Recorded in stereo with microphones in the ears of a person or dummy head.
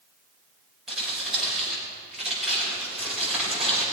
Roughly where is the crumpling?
Centre.